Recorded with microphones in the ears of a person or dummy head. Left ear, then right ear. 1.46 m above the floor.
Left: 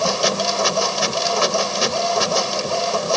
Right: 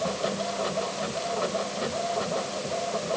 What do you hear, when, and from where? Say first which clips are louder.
0.0 s a machine running: left 10 dB; 80° left